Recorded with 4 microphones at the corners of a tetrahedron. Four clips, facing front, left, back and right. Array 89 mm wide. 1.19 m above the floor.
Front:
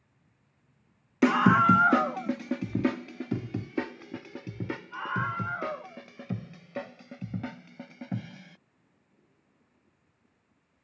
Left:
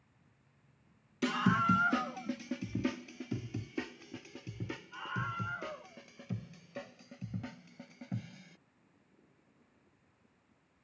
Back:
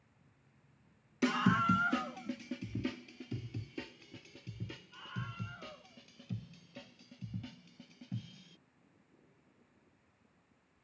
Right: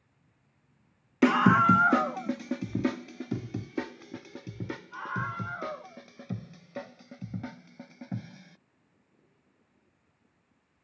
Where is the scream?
50° right; by 8.6 s 20° right.